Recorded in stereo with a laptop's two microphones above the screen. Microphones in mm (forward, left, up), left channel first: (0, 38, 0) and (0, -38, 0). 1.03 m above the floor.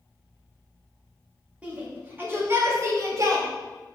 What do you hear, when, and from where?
1.6 s a shout: 15° right (ahead or behind), 1.9 m; by 3.5 s 50° right (ahead or behind), 1.8 m